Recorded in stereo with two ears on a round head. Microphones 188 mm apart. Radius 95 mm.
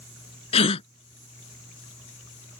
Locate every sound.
0.5 s a gasp: 30° left (ahead or behind)